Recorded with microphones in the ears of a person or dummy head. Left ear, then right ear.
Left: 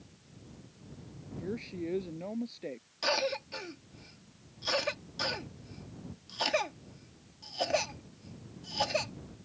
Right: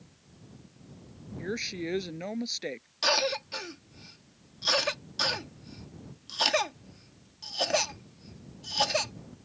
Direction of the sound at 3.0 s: 15° right (ahead or behind).